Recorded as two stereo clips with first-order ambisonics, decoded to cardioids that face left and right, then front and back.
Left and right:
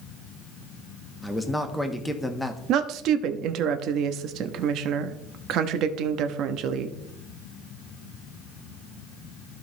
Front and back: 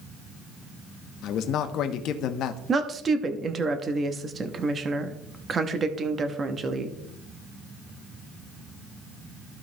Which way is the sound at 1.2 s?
5° left.